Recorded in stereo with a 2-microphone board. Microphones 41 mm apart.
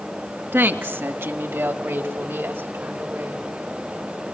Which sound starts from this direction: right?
A woman speaking, at 0.5 s.